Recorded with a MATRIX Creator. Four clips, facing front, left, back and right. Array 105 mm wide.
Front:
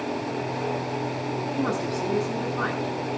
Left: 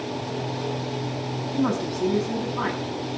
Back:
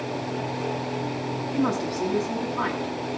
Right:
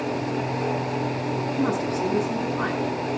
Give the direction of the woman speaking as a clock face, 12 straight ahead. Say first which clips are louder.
Left 2 dB, back 4 dB; 7 o'clock.